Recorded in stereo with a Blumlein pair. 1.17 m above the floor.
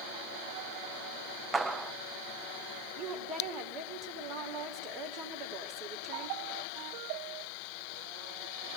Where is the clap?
10° right, 0.9 m.